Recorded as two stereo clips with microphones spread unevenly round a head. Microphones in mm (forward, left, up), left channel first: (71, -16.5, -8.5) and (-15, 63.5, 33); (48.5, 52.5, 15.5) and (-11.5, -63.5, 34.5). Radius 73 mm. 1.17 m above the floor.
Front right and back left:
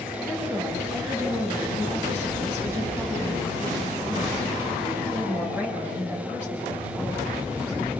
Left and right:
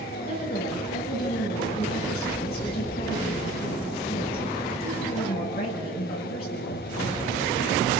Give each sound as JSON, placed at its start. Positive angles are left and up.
{"t": 0.2, "sound": "a woman speaking", "azimuth_deg": 60, "distance_m": 8.5}